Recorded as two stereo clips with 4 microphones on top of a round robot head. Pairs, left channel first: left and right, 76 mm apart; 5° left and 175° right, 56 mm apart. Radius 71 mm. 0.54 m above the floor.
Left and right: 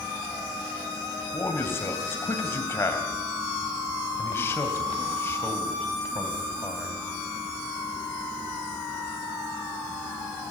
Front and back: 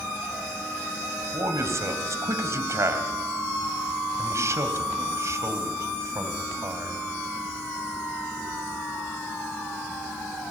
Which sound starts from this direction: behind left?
A man speaking, at 1.3 s.